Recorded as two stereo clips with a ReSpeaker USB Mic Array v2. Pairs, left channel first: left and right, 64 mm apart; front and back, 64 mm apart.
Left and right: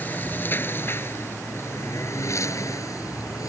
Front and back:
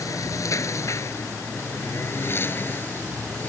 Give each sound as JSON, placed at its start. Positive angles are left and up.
{"t": 0.0, "sound": "a lawn mower", "azimuth_deg": 30}